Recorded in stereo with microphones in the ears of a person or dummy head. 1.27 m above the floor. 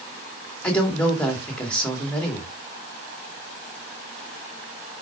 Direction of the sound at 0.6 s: 5° left (ahead or behind).